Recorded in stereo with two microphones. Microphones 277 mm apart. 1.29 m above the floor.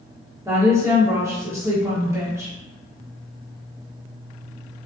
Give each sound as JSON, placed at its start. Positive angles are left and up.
{"t": 0.5, "sound": "a woman speaking", "side_deg": -10, "distance_m": 0.9}